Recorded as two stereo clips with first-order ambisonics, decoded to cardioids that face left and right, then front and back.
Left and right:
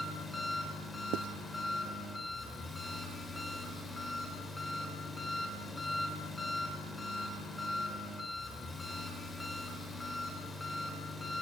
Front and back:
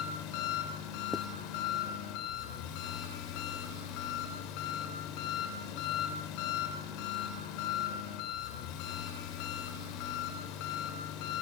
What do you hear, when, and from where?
0.0 s an engine running: 5° left, 3.5 m
1.1 s writing: 80° right, 0.6 m